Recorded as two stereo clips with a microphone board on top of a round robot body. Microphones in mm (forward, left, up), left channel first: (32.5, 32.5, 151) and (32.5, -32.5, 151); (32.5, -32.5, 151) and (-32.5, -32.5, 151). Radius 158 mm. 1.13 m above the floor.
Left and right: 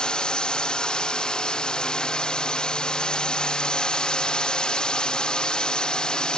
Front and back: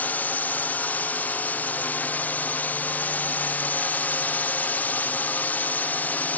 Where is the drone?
25° left.